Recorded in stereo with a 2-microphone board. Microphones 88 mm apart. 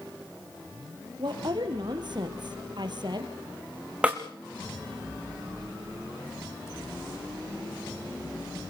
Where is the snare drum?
15° right (ahead or behind), 2.5 m.